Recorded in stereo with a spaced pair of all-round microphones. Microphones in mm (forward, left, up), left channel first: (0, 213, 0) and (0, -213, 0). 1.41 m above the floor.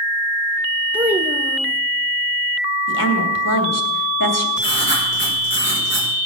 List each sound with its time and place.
0.9 s a child speaking: 5° right (ahead or behind), 1.2 m
2.9 s a woman speaking: 45° left (ahead or behind), 3 m
4.6 s writing: 25° left (ahead or behind), 5 m